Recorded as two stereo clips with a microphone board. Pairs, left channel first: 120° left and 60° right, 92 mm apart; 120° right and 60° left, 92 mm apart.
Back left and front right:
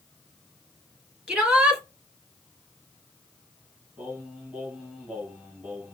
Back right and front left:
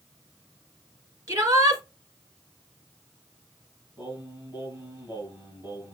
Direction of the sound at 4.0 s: 25° left.